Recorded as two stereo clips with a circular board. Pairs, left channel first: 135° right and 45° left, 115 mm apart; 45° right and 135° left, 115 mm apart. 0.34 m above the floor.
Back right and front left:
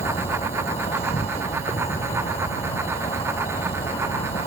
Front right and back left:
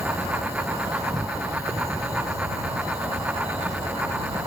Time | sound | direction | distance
0.0 | an insect | 165° right | ?